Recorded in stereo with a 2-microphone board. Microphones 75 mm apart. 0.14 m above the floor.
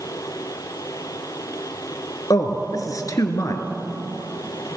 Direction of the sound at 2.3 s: 50° left (ahead or behind).